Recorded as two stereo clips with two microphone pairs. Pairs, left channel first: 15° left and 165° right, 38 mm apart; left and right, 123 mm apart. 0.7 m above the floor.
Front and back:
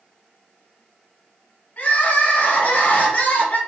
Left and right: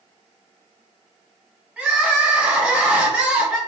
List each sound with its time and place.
1.8 s crying: 15° right, 1.7 m